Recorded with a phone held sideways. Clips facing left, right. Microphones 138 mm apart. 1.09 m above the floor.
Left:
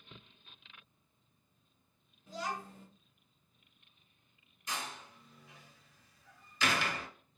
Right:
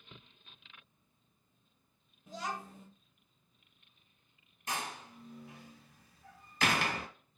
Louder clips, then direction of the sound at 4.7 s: Right 3 dB; 55° right (ahead or behind).